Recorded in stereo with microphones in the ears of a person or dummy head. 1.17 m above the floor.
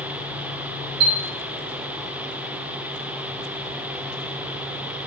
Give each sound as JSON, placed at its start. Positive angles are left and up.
{"t": 1.0, "sound": "a chime", "side_deg": -55, "distance_m": 1.3}